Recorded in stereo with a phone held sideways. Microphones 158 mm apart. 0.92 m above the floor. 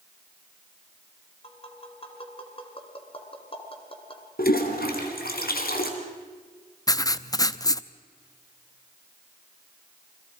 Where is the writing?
25° left (ahead or behind), 0.5 m.